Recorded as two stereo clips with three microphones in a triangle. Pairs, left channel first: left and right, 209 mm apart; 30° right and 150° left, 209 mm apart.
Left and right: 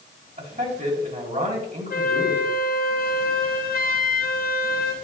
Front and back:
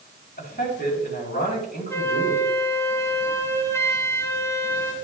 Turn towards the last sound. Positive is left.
turn(degrees=45)